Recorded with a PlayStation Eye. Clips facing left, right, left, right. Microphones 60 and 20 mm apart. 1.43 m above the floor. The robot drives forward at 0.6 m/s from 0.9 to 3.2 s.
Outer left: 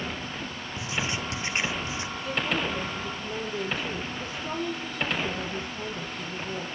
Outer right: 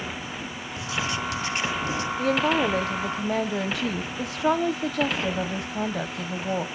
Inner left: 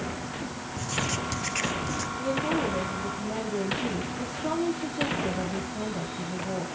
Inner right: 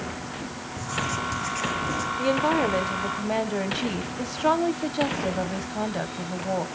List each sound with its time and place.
0.8 s writing: 25° left (ahead or behind), 1.1 m
2.2 s a woman speaking: 60° right (ahead or behind), 1.1 m; by 6.7 s 80° right, 1.0 m